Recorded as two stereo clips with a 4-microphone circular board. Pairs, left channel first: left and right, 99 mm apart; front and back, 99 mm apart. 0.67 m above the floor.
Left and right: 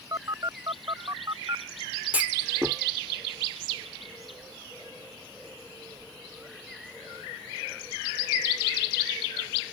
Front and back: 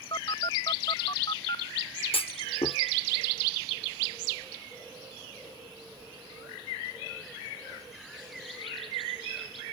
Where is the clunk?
15° right.